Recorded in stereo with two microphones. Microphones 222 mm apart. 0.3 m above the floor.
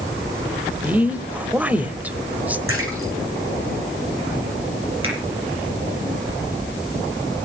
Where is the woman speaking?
5° right (ahead or behind), 0.9 m.